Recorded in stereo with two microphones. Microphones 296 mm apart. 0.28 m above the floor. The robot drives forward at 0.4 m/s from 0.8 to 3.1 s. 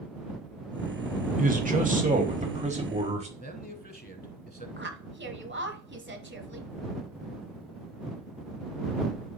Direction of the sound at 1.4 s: 30° right (ahead or behind).